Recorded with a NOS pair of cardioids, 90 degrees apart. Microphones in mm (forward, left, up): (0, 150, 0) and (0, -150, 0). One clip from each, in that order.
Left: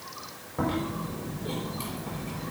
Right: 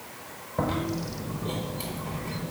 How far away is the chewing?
About 4.5 m.